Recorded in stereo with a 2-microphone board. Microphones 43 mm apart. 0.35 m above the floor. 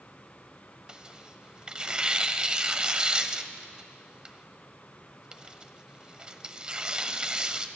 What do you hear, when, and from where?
0.9 s tearing paper: 25° right (ahead or behind), 0.7 m